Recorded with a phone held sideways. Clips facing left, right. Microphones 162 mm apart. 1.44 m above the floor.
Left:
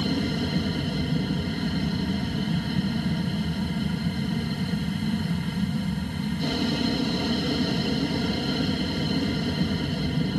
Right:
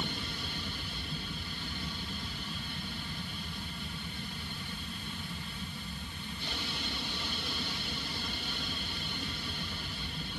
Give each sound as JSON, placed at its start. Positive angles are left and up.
{"t": 0.0, "sound": "an aircraft", "side_deg": 60}